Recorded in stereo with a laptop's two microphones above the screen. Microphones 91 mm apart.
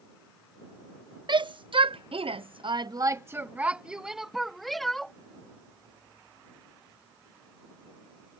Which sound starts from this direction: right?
A shout, at 1.3 s.